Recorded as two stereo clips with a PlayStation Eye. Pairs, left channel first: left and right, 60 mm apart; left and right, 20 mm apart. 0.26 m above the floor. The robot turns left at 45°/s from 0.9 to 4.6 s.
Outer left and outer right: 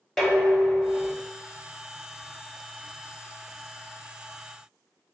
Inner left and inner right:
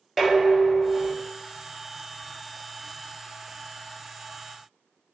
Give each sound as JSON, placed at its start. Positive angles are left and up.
{"t": 0.2, "sound": "dishes clattering", "side_deg": 10, "distance_m": 0.9}